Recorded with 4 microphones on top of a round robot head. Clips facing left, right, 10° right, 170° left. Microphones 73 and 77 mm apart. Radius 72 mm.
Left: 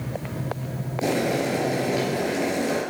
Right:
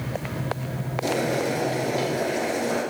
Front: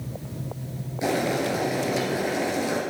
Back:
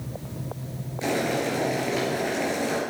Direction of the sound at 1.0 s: 65° left.